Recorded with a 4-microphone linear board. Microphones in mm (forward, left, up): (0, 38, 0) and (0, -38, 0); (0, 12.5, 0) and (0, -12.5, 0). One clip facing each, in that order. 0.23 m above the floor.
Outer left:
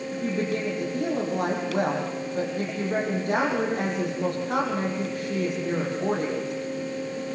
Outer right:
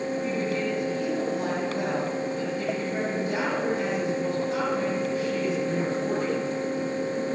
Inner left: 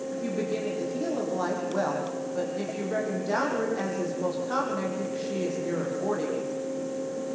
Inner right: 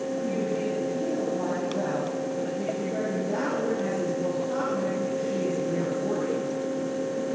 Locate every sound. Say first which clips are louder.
0.1 s a woman speaking: outer left 3 dB, inner right 1 dB; 55° left (ahead or behind), 9 m